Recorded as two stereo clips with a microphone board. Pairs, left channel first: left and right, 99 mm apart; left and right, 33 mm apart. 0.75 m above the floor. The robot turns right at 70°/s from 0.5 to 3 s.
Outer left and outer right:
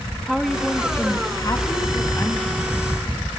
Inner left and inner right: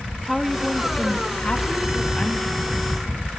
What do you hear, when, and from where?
0.3 s a woman speaking: straight ahead, 1.1 m; by 2.5 s 140° left, 1.1 m